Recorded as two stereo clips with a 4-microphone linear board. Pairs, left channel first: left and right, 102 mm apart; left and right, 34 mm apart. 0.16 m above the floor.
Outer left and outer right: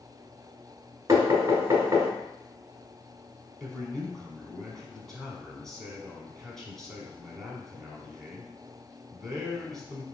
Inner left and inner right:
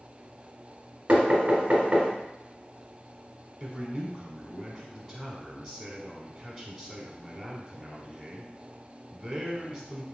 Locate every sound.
1.1 s knocking: 30° right (ahead or behind), 1.4 m
3.6 s a man speaking: 5° left (ahead or behind), 1.0 m